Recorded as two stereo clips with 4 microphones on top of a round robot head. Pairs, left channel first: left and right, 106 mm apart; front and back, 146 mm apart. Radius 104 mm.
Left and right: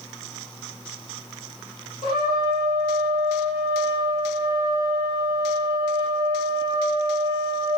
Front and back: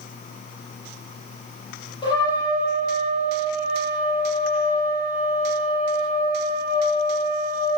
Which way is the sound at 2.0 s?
60° left.